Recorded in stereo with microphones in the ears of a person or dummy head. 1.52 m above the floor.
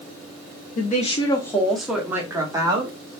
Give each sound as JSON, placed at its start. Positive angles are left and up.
{"t": 0.8, "sound": "a woman speaking", "side_deg": 50, "distance_m": 0.6}